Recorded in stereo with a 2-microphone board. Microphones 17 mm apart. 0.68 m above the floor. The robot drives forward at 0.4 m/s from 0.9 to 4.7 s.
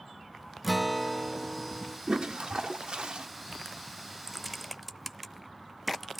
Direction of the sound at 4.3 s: 5° right (ahead or behind).